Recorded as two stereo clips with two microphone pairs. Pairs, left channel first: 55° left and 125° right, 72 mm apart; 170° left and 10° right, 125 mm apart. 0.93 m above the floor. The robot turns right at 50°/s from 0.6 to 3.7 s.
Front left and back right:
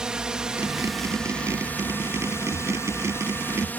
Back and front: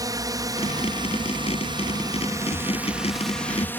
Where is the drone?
50° right; by 3.8 s 105° left.